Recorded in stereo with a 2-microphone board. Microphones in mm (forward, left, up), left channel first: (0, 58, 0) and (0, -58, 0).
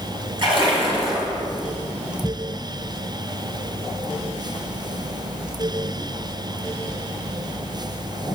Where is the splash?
45° right (ahead or behind), 2 m.